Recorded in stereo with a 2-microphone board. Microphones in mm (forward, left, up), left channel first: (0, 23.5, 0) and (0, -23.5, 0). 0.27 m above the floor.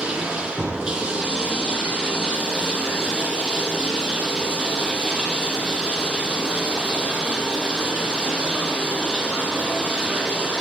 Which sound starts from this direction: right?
Running water, at 0.0 s.